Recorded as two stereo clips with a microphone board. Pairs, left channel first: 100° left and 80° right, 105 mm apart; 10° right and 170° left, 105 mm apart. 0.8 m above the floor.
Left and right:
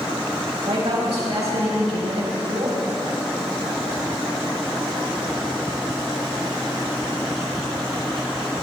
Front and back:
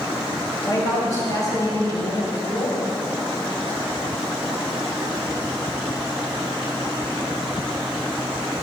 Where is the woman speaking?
70° right, 5.5 m; by 2.8 s 55° right, 5.5 m.